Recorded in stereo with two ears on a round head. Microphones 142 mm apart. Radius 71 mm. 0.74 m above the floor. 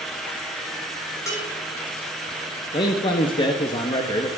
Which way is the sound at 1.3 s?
20° left (ahead or behind).